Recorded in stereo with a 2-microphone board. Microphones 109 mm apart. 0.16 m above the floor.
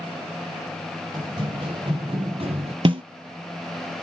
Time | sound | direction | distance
1.1 | running footsteps | 40° right (ahead or behind) | 2 m
2.9 | a snare drum | 50° right (ahead or behind) | 0.8 m